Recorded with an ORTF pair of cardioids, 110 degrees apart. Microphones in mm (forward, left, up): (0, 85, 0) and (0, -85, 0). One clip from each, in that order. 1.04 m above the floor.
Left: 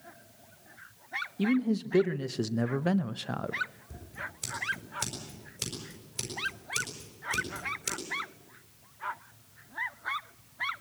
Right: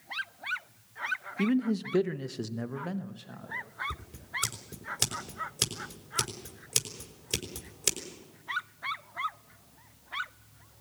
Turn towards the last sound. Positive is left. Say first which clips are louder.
# right 3 dB
turn(degrees=-60)